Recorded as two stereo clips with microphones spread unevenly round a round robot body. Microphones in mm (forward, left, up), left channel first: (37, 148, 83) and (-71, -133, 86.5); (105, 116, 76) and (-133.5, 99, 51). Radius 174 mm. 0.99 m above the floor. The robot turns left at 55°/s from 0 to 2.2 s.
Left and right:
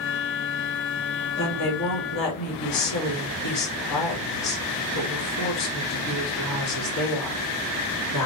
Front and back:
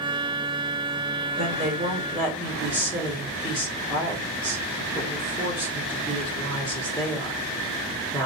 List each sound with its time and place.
1.4 s a woman speaking: 140° left, 3 m; by 8.3 s 95° left, 3 m